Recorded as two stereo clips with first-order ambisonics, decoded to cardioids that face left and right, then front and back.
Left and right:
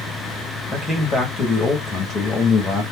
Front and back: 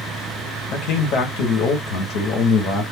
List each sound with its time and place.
0.7 s a man speaking: 25° left, 1.1 m